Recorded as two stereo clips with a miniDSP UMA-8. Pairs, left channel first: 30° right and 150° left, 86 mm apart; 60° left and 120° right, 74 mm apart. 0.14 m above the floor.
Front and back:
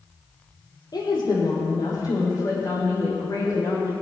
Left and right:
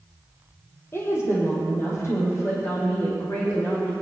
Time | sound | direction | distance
0.9 | a woman speaking | 5° left | 3.5 m